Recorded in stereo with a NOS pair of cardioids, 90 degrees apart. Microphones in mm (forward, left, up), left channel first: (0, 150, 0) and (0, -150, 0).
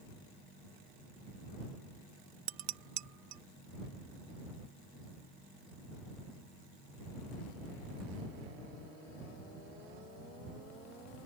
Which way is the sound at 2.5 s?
65° right.